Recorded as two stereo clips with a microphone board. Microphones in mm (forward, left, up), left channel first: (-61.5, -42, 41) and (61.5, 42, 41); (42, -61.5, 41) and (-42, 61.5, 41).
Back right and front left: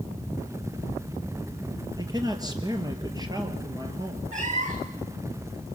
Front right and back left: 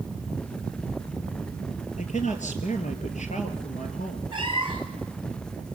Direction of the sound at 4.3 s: 70° left.